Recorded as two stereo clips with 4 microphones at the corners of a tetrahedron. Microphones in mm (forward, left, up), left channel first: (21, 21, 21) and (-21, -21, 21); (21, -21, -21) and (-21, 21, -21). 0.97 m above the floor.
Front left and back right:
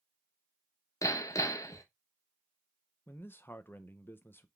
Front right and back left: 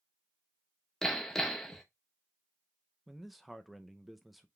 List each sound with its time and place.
1.0 s hammering: 35° left, 0.8 m
3.1 s a man speaking: 45° left, 0.5 m